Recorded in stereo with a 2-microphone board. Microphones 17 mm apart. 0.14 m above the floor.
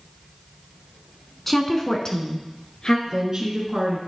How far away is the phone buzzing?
No phone buzzing in this recording.